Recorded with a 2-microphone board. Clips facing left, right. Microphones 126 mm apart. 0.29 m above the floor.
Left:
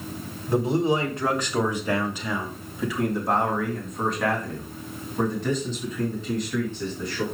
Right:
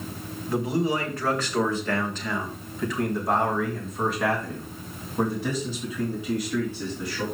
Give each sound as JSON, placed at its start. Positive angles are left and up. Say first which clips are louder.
{"t": 0.5, "sound": "a man speaking", "louder": "left 3 dB", "side_deg": 30, "distance_m": 1.5}